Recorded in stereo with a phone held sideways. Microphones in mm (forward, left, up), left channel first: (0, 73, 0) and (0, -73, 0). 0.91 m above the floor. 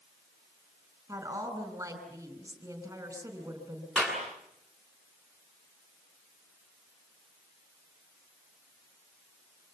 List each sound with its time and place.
1.1 s a woman speaking: 15° right (ahead or behind), 4.5 m
4.0 s a clap: 10° left (ahead or behind), 8 m